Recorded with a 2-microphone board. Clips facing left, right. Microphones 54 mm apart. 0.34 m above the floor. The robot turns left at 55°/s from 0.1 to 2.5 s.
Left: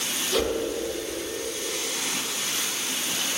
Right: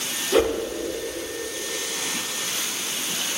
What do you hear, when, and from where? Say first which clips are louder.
0.3 s a whoosh: right 6 dB; 25° right (ahead or behind), 0.7 m; by 0.6 s 35° right (ahead or behind), 0.7 m